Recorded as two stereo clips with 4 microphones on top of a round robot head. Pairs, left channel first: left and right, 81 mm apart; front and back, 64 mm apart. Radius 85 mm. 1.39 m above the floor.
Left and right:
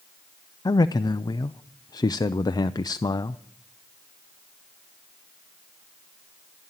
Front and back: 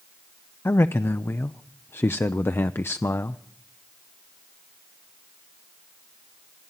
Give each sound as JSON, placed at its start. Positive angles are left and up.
{"t": 0.7, "sound": "a man speaking", "azimuth_deg": 50, "distance_m": 0.5}